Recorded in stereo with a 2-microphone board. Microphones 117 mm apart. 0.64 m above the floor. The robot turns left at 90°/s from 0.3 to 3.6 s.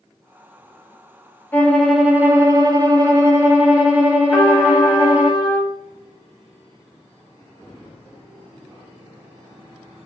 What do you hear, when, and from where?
1.5 s a violin: 35° left, 1.0 m; by 5.3 s 155° right, 1.0 m
4.3 s a trumpet: 15° left (ahead or behind), 1.4 m